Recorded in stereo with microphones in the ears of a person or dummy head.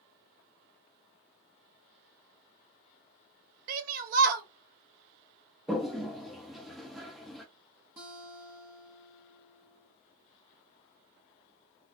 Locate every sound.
3.7 s a shout: 50° right (ahead or behind), 1.0 m
5.7 s a toilet flushing: centre (ahead or behind), 0.6 m
8.0 s a guitar: 15° right (ahead or behind), 0.8 m